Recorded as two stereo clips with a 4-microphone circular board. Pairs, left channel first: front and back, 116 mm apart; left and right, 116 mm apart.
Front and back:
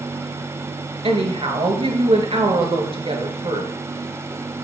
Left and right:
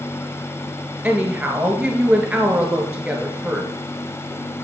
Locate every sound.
1.0 s a woman speaking: 160° right, 1.6 m